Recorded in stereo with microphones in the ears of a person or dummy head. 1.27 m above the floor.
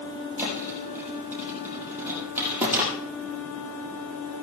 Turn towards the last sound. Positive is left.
turn(degrees=-10)  # may be behind; listen again after turning